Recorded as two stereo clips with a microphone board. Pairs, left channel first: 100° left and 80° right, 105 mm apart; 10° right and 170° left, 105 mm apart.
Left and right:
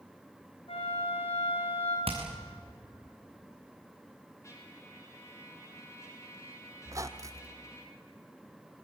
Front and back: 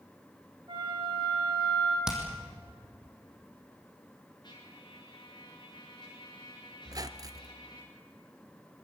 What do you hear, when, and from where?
0.7 s a flute: 125° left, 6 m
2.1 s hammering: 105° right, 4.5 m
4.4 s a trumpet: 35° left, 5.5 m
6.8 s a squeak: 135° right, 0.9 m